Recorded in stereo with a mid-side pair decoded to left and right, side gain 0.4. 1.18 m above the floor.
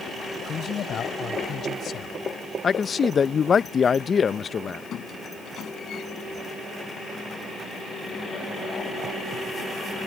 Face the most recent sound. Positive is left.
turn(degrees=65)